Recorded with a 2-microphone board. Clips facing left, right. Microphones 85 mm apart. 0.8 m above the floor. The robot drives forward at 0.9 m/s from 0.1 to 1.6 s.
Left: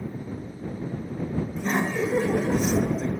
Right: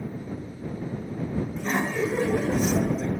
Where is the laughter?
10° left (ahead or behind), 0.7 m.